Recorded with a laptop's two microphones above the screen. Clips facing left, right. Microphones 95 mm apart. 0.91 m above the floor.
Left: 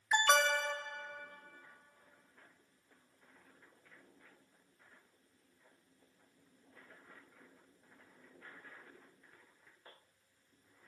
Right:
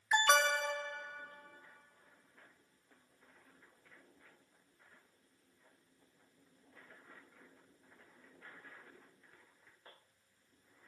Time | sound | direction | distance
0.1 | an alarm | 5° right (ahead or behind) | 1.4 m